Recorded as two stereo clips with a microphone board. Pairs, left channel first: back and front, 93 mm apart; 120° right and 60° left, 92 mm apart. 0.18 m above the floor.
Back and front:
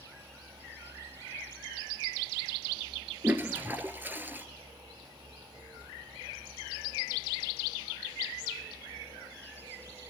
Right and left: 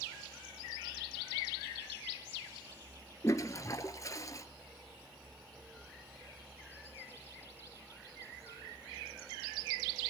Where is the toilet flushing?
70° right, 1.3 m.